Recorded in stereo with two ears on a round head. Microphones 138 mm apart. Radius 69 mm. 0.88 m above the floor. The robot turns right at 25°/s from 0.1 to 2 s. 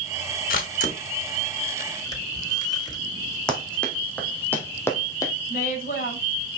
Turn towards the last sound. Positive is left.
turn(degrees=65)  # may be behind; listen again after turning